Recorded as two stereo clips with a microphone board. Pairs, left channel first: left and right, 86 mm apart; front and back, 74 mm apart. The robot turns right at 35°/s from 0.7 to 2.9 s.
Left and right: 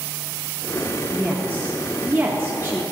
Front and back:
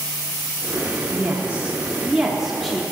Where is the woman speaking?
145° right, 0.8 m; by 2.8 s 85° right, 0.8 m.